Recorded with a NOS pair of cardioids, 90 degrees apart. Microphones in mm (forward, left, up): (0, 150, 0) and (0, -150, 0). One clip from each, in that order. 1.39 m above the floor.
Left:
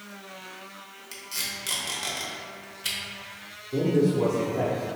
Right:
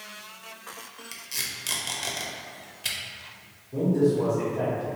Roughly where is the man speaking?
Ahead.